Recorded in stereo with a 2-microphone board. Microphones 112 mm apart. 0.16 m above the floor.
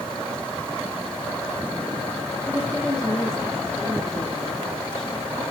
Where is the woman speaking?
5° left (ahead or behind), 2.5 m.